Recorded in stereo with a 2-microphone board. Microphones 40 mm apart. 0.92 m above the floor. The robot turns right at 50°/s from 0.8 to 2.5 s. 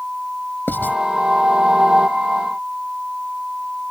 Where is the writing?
60° left (ahead or behind); by 1.0 s 50° left (ahead or behind).